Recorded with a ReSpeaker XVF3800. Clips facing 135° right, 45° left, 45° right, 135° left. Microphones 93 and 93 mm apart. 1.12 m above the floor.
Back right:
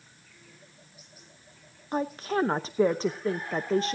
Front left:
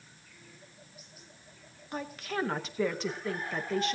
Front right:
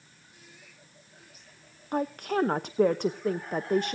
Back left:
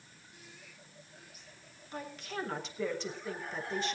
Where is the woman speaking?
80° right, 0.6 m.